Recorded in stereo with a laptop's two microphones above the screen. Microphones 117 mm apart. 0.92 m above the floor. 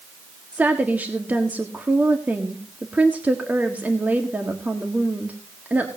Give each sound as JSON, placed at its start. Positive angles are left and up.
{"t": 0.5, "sound": "a woman speaking", "side_deg": -15, "distance_m": 1.6}